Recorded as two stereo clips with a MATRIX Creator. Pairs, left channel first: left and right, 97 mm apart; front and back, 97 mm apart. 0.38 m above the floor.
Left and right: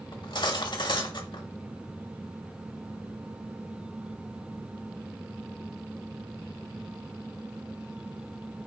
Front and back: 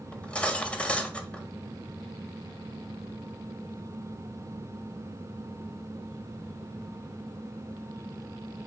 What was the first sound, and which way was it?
Cutlery clinking, 75° left.